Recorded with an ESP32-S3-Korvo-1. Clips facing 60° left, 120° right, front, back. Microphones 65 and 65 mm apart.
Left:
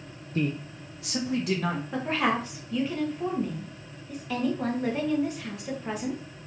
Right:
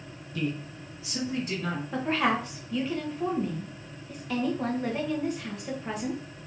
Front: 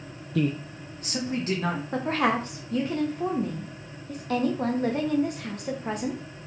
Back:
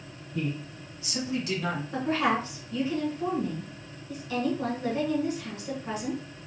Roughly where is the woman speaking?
Ahead right.